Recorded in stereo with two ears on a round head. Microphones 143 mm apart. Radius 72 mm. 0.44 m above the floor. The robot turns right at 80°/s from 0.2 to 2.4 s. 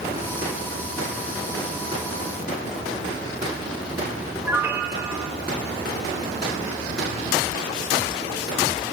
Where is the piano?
15° right (ahead or behind), 1.4 m.